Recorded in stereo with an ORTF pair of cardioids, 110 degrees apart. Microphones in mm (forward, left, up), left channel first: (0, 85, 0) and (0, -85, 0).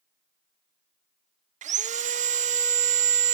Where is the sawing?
45° right, 0.9 m.